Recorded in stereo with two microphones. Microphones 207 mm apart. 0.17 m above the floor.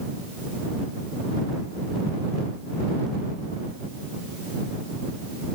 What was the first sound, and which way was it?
Only background noise.